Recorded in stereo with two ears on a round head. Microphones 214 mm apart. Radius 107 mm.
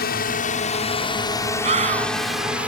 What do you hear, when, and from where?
0.0 s a drone: 40° left (ahead or behind); by 2.7 s 5° right (ahead or behind)
1.6 s a scream: 30° right (ahead or behind)